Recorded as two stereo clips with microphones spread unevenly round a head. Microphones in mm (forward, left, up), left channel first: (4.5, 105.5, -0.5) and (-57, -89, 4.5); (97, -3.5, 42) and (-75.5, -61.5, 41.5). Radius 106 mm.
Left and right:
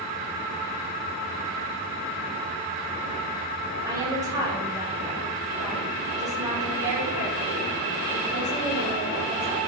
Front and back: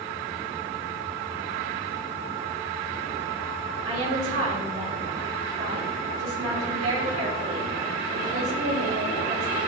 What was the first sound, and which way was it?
A woman speaking, straight behind.